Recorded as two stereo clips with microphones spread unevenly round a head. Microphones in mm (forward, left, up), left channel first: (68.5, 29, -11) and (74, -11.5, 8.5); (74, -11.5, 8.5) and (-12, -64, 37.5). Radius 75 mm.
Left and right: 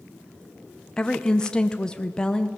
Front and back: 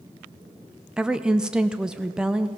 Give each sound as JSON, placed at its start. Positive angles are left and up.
{"t": 1.0, "sound": "a woman speaking", "azimuth_deg": 110, "distance_m": 0.6}